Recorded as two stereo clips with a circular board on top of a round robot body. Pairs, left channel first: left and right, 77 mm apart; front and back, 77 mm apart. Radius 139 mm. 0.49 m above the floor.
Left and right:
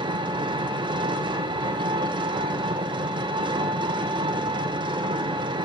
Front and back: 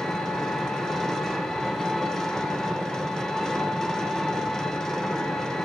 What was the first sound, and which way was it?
An engine running, 85° right.